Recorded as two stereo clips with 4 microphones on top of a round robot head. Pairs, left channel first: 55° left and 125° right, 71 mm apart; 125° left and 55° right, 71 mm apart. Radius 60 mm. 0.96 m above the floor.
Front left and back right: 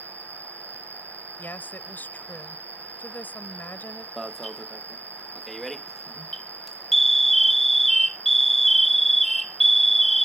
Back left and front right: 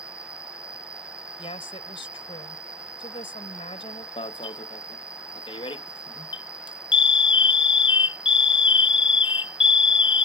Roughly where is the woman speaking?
Behind left.